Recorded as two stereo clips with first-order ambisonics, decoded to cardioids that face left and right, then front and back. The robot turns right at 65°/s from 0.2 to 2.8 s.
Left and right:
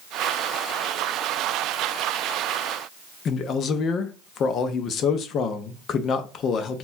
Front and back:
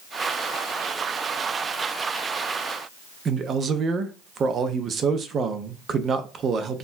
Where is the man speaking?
130° left, 0.5 m.